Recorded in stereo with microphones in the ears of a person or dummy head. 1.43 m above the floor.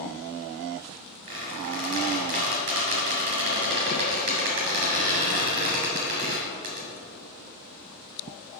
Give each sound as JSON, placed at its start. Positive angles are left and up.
{"t": 1.3, "sound": "a squeak", "side_deg": -45, "distance_m": 2.0}